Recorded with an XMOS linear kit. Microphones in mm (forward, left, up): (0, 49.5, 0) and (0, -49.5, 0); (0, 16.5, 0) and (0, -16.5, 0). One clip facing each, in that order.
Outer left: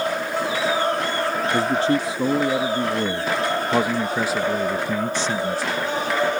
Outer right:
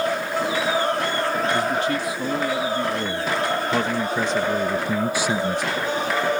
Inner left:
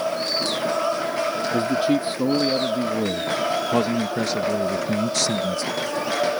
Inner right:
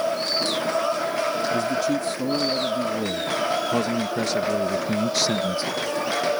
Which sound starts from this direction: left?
A man speaking, at 1.5 s.